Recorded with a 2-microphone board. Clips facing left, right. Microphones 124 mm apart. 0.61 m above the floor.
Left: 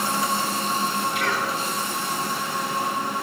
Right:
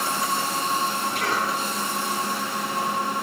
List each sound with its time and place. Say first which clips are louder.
1.1 s a cough: even; 45° right (ahead or behind), 8 m